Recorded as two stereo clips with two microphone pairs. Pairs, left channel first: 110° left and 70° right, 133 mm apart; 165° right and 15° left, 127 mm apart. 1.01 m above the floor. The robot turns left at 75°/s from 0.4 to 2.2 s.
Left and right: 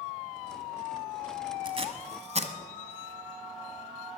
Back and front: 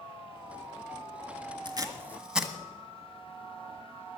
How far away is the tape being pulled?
About 1.3 m.